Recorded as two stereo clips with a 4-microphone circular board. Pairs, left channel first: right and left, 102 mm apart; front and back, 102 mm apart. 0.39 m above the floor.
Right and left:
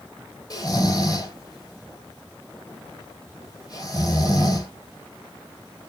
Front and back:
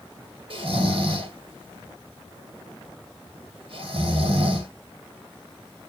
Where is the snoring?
145° right, 1.9 m.